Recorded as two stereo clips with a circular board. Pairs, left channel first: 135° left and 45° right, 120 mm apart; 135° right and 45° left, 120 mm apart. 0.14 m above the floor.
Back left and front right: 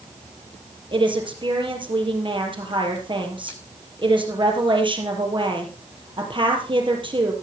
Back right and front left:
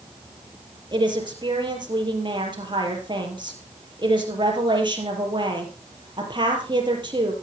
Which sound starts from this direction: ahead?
A woman speaking, at 0.9 s.